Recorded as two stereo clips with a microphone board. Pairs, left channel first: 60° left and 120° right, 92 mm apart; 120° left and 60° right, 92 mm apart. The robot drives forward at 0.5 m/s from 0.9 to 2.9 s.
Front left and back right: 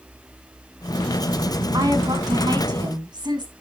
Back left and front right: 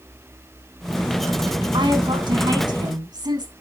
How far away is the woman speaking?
About 3 m.